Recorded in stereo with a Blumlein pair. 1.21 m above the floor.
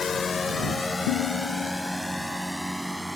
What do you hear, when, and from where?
0.0 s a drone: 20° left; by 3.2 s straight ahead
1.1 s dishes clattering: 45° left